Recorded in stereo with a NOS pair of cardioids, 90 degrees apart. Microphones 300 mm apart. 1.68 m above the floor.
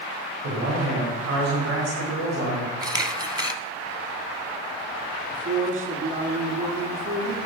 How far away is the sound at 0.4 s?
About 5.5 m.